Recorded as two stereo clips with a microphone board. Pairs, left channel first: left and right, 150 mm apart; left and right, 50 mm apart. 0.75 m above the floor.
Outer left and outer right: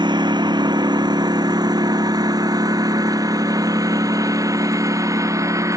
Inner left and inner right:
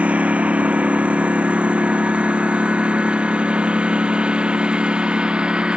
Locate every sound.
0.0 s a lawn mower: 30° right (ahead or behind); by 5.8 s 20° right (ahead or behind)